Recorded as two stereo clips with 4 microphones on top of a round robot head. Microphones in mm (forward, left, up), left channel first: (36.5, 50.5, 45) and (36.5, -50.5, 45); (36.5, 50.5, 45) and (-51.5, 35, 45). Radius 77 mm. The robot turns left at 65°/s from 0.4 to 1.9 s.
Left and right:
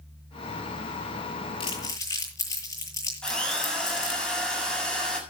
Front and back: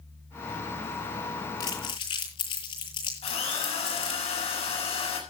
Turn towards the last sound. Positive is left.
turn(degrees=10)